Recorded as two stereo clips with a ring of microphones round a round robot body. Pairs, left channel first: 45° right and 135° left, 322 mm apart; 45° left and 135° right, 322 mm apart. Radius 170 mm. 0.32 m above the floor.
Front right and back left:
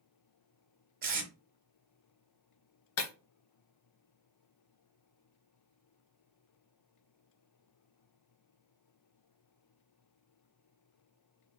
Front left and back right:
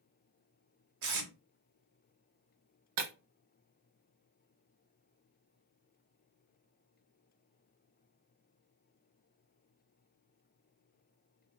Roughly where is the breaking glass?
Right.